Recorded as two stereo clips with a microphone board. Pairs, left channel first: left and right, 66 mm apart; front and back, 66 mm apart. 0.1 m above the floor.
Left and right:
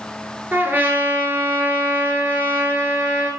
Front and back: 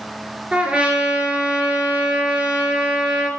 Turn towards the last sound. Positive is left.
turn(degrees=-120)